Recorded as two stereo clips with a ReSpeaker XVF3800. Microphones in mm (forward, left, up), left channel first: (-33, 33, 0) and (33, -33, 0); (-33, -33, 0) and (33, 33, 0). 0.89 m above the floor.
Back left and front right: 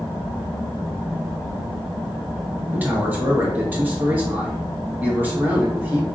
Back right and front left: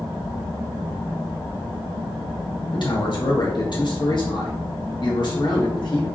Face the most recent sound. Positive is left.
turn(degrees=-110)